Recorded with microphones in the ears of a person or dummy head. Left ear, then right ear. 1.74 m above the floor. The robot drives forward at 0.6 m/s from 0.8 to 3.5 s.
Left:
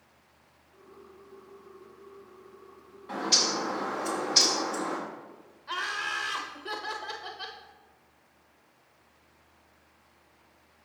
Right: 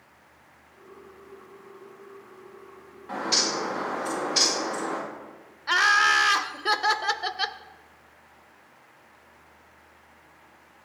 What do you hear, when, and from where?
3.1 s a bird: 5° right (ahead or behind), 1.8 m
5.7 s laughter: 40° right (ahead or behind), 0.6 m